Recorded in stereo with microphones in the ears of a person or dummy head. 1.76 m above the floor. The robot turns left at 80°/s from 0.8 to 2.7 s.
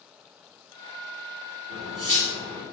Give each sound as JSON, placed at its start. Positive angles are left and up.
{"t": 1.7, "sound": "cutlery clinking", "azimuth_deg": -100, "distance_m": 1.5}